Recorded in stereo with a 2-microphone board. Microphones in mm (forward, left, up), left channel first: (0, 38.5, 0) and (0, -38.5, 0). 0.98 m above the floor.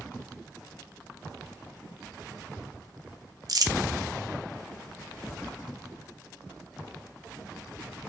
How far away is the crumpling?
About 0.6 m.